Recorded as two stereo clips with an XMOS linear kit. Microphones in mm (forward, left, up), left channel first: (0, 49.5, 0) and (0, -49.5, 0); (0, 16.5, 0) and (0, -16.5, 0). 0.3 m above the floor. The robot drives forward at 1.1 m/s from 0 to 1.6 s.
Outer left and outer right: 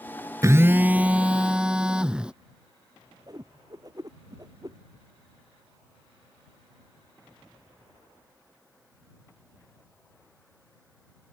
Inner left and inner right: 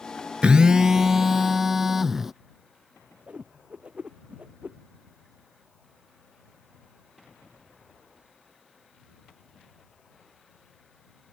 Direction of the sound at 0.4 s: 35° right (ahead or behind).